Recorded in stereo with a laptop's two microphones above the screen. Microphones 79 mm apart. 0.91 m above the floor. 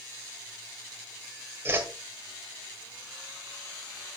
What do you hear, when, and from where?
1.6 s a whoosh: 30° right (ahead or behind), 1.5 m